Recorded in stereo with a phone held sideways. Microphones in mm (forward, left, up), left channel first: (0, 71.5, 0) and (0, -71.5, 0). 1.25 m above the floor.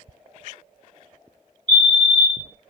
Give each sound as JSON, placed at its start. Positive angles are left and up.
{"t": 1.7, "sound": "a fire alarm", "side_deg": 5, "distance_m": 1.0}